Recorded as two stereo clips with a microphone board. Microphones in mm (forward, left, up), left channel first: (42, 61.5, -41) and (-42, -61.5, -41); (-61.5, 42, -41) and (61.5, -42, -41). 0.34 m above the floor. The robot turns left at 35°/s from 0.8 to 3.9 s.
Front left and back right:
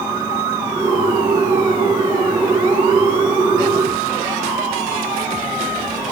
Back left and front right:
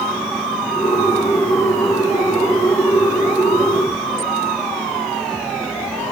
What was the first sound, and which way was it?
Only background noise.